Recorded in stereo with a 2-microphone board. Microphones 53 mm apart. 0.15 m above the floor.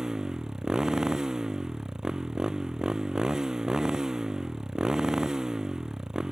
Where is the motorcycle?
10° right (ahead or behind).